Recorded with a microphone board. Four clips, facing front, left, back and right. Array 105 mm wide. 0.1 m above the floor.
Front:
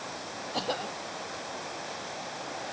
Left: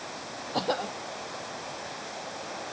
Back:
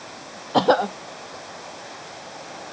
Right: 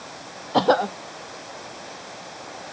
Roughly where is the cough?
Behind right.